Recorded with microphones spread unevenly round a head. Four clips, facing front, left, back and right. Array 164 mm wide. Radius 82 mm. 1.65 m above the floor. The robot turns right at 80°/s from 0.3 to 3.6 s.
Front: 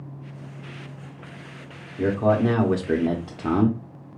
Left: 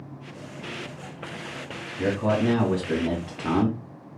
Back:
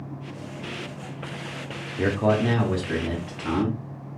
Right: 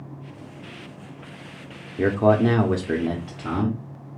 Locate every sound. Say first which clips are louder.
2.0 s a man speaking: right 5 dB, front 2 dB; 105° right, 0.6 m; by 3.8 s 20° left, 0.6 m